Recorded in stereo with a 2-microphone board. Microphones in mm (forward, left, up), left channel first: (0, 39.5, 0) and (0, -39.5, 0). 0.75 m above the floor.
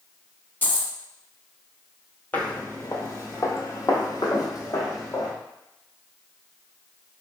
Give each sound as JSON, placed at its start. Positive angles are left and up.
{"t": 0.6, "sound": "a dropped coin", "side_deg": 25, "distance_m": 0.6}
{"t": 2.3, "sound": "footsteps", "side_deg": 25, "distance_m": 0.8}